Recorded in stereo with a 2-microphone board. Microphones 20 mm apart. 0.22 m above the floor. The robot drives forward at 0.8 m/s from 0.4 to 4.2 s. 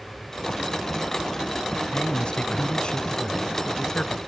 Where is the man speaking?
50° left (ahead or behind); by 4.2 s 40° left (ahead or behind).